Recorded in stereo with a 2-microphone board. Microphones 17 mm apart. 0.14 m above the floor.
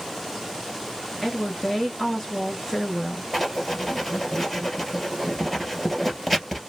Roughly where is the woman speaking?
Centre.